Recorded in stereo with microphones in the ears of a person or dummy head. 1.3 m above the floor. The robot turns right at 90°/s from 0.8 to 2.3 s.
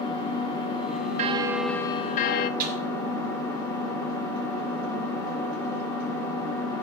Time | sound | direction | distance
0.0 | an engine running | 25° left | 2 m
1.2 | a bell | 40° right | 0.5 m
2.6 | a snare drum | 45° right (ahead or behind) | 2.5 m